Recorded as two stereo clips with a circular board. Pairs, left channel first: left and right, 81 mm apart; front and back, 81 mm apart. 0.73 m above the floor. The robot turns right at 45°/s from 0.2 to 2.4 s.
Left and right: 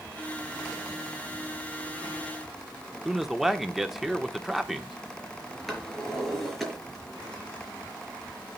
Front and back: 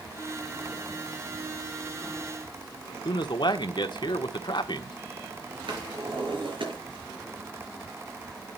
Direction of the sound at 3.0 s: 5° right.